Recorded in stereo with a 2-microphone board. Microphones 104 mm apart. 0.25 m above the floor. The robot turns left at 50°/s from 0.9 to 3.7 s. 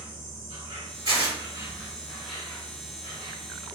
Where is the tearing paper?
50° right (ahead or behind), 2.0 m; by 1.4 s 55° right (ahead or behind), 2.0 m.